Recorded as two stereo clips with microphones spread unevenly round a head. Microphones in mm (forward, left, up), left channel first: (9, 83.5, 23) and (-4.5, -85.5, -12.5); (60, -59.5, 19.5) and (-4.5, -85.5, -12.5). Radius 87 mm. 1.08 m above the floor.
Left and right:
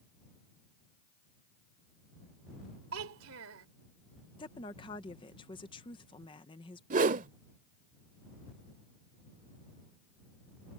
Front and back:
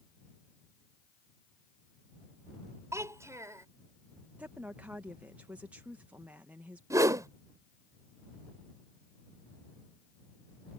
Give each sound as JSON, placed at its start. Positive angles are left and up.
{"t": 2.9, "sound": "a child speaking", "azimuth_deg": -105}
{"t": 4.4, "sound": "a woman speaking", "azimuth_deg": 150}
{"t": 6.9, "sound": "a whoosh", "azimuth_deg": -105}